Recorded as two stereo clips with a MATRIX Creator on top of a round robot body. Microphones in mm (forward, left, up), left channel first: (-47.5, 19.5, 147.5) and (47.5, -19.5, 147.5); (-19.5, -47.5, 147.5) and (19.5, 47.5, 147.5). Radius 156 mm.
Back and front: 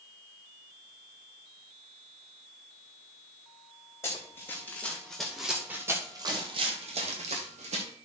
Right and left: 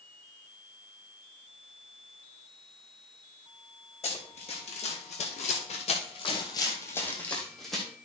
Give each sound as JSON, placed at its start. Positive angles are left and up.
{"t": 4.0, "sound": "running footsteps", "azimuth_deg": -135, "distance_m": 2.0}